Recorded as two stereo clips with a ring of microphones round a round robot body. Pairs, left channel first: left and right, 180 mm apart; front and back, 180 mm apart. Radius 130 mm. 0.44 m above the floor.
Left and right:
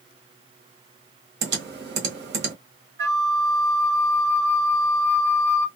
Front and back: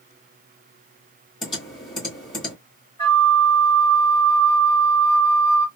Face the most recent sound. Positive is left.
turn(degrees=-75)